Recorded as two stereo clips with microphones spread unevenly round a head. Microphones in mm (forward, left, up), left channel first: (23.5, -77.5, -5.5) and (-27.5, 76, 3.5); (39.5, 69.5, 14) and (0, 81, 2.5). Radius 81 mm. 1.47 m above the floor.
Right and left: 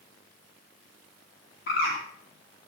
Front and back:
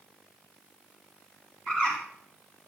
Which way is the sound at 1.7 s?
100° right.